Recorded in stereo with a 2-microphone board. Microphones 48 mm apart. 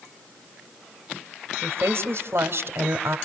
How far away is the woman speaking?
About 2 m.